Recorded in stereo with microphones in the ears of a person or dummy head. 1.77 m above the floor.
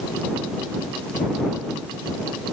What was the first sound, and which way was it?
Only background noise.